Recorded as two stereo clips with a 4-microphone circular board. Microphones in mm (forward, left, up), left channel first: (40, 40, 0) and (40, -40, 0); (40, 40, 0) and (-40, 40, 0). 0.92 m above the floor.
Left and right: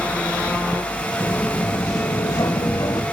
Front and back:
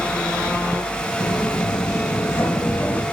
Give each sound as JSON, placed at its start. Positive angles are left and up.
{"t": 1.2, "sound": "footsteps", "azimuth_deg": 30, "distance_m": 2.5}